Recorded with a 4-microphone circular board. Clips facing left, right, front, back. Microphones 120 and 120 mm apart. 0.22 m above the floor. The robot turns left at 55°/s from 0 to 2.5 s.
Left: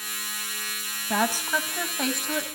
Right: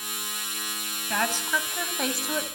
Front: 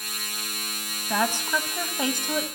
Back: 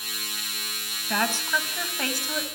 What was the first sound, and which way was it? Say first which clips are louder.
A woman speaking: left 2 dB, front 2 dB; 50° left.